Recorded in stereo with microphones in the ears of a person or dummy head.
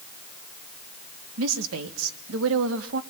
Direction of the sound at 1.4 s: 75° right (ahead or behind).